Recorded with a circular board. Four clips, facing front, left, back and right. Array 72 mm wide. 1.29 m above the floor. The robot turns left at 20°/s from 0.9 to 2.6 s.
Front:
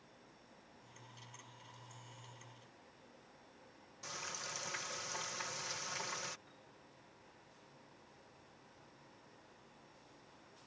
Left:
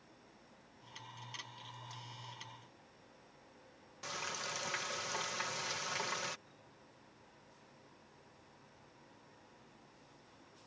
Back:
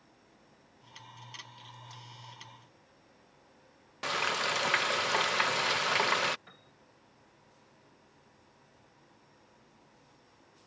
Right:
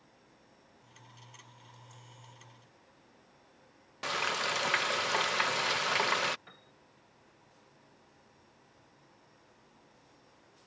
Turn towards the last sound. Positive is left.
turn(degrees=-130)